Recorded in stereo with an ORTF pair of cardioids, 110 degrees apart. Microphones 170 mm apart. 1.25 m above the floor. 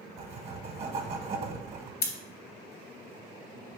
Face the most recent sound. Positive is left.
turn(degrees=60)